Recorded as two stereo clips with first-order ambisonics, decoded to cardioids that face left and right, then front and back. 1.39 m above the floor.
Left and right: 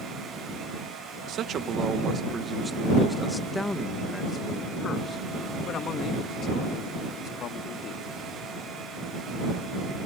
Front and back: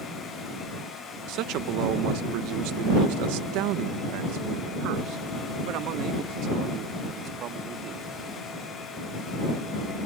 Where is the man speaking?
145° right; by 8.1 s 135° left.